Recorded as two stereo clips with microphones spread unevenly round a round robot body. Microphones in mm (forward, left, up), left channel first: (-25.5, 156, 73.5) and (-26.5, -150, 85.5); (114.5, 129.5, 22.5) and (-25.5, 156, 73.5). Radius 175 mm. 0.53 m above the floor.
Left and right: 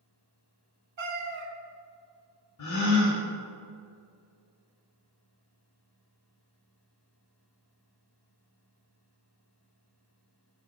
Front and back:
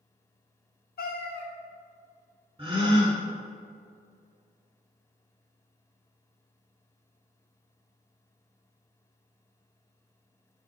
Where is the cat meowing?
35° right, 1.0 m.